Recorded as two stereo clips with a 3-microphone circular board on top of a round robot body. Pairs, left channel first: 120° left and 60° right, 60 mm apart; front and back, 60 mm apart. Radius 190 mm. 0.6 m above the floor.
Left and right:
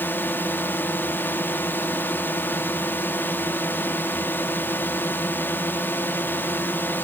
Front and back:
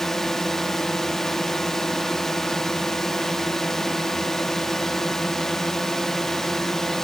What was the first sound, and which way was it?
A drone, 85° left.